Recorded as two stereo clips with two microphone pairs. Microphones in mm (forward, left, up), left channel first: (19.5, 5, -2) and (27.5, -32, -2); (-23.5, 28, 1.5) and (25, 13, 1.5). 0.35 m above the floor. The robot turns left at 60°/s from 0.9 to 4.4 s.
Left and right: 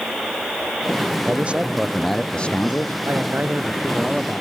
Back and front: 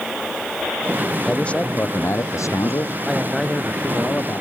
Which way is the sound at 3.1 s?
95° right.